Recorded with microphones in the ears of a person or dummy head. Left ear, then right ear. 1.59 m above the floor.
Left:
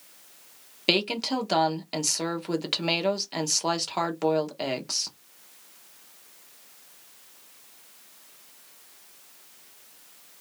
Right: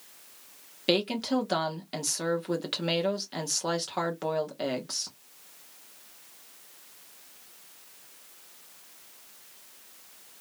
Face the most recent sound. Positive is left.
turn(degrees=15)  # may be behind; listen again after turning